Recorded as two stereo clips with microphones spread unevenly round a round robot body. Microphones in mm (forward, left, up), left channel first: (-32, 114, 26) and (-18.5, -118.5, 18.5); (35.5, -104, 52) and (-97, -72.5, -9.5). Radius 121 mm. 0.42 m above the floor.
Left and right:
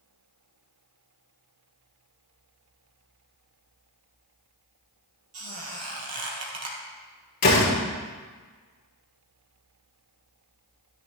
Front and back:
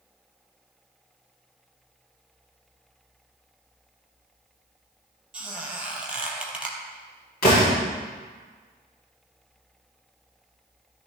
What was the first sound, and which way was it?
A squeak, 110° right.